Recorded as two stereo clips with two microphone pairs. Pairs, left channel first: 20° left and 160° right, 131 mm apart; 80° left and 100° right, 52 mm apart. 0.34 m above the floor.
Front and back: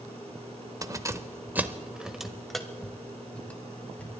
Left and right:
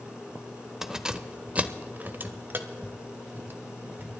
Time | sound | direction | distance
0.8 | keys jangling | 175° right | 0.8 m